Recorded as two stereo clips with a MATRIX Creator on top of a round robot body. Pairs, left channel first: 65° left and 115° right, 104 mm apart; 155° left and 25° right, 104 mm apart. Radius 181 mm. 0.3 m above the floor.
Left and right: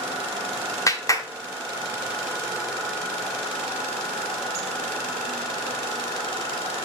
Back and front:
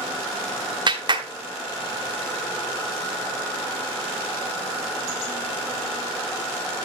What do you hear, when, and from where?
0.9 s a clap: 15° left, 1.5 m